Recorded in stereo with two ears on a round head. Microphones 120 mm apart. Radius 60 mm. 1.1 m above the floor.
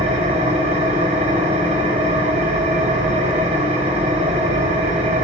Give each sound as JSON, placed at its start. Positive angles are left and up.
{"t": 0.0, "sound": "an engine running", "side_deg": -45, "distance_m": 4.0}